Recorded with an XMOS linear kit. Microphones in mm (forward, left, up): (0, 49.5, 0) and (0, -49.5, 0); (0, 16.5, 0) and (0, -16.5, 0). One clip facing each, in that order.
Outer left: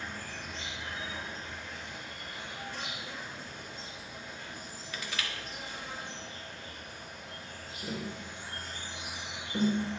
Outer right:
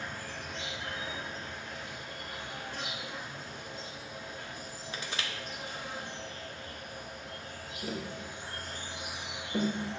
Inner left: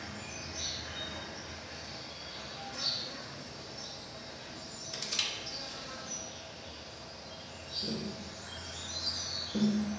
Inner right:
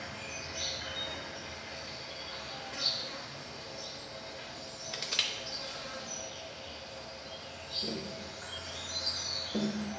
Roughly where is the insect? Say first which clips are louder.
Outer right 1 dB, inner right 2 dB; right.